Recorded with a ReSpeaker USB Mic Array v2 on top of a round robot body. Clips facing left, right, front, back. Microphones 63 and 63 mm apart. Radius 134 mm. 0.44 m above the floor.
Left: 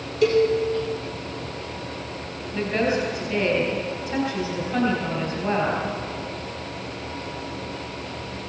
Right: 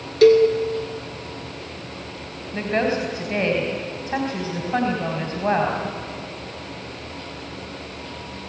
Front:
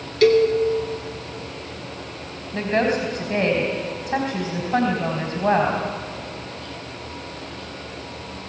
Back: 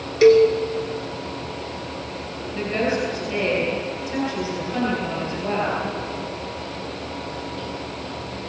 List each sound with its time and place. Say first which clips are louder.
0.2 s a cowbell: right 6 dB, back 3 dB; 105° right, 2.0 m
2.5 s a woman speaking: right 1 dB, front 2 dB; 50° right, 3 m